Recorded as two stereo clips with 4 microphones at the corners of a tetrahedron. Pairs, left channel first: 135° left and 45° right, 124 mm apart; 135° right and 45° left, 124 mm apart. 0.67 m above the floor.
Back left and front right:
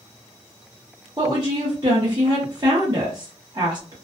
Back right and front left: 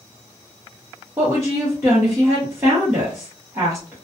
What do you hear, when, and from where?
1.2 s a woman speaking: 15° right, 0.8 m